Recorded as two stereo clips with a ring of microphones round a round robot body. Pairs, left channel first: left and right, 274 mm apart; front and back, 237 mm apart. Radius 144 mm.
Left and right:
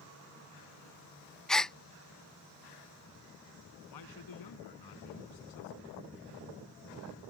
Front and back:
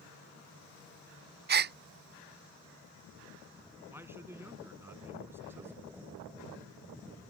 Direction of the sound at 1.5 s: 175° left.